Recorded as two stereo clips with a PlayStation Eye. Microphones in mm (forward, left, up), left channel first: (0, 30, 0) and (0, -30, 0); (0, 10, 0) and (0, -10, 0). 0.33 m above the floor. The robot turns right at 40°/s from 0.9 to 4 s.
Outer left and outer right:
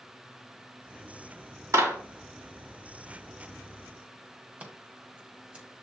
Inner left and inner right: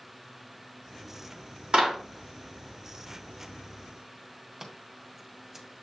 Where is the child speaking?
No child speaking in this recording.